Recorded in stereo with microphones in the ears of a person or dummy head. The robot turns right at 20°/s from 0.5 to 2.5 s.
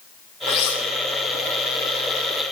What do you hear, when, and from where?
0.5 s cutlery clinking: 80° left, 2.5 m; by 0.8 s 75° left (ahead or behind), 2.5 m